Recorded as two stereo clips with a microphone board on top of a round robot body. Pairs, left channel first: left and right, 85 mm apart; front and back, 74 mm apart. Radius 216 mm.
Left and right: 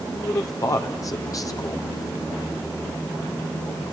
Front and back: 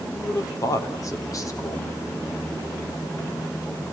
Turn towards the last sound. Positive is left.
turn(degrees=40)